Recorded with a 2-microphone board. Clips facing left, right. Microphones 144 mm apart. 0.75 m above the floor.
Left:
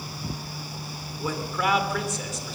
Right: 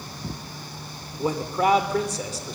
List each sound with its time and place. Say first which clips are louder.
1.2 s a man speaking: right 5 dB; 35° right (ahead or behind), 2.5 m